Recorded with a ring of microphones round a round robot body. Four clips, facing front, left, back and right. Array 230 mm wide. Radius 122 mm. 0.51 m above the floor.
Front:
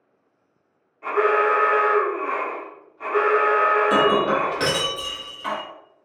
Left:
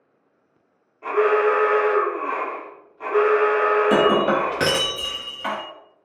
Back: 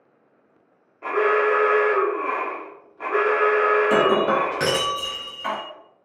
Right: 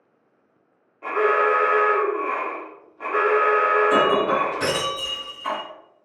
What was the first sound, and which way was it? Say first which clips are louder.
An alarm: left 2 dB, front 1 dB; 160° right.